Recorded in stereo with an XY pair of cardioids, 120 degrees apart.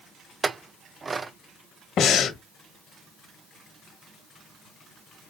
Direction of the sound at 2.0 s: 55° left.